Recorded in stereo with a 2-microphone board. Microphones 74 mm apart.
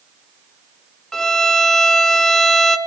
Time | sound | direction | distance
1.1 | a violin | 5° left (ahead or behind) | 1.4 m